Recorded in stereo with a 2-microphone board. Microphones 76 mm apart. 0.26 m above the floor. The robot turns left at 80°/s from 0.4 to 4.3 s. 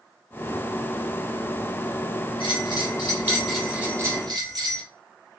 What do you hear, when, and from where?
2.4 s a bell: 95° left, 1.9 m; by 4.8 s 60° right, 1.9 m